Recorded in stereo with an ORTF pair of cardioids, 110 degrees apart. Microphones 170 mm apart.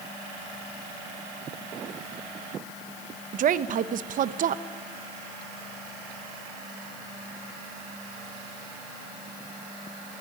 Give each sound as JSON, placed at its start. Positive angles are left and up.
{"t": 3.3, "sound": "a woman speaking", "azimuth_deg": -55, "distance_m": 1.0}